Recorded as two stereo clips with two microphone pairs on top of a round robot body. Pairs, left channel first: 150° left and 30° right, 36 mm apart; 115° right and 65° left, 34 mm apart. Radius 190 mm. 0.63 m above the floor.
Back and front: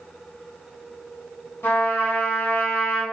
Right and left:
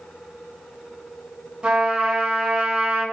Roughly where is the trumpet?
Behind left.